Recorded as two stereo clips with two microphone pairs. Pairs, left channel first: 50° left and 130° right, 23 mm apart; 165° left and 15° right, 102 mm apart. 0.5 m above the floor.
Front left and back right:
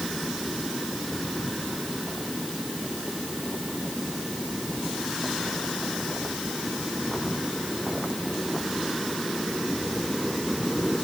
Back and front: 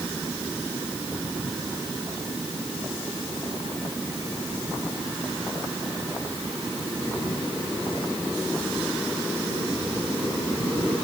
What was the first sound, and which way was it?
Only background noise.